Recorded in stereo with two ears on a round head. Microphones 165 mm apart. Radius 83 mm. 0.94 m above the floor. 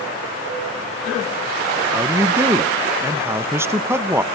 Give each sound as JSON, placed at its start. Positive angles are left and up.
{"t": 1.9, "sound": "a man speaking", "side_deg": -15, "distance_m": 0.5}